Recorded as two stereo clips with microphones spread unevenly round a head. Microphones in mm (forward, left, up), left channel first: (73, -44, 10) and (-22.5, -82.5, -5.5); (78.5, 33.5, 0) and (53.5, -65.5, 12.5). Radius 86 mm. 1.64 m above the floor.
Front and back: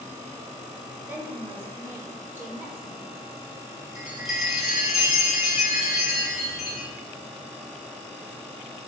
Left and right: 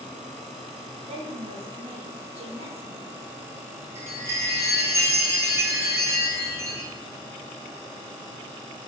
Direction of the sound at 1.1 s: 85° right.